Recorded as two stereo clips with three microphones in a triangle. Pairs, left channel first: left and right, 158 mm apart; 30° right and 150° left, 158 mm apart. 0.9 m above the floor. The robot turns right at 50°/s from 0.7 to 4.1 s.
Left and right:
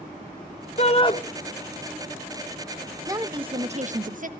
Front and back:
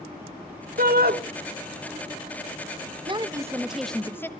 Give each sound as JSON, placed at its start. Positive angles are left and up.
{"t": 0.8, "sound": "a shout", "azimuth_deg": 130, "distance_m": 1.6}
{"t": 3.1, "sound": "a woman speaking", "azimuth_deg": -155, "distance_m": 1.2}